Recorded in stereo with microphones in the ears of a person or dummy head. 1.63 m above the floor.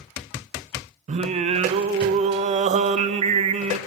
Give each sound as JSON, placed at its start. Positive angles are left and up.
{"t": 1.1, "sound": "singing", "side_deg": -45, "distance_m": 0.5}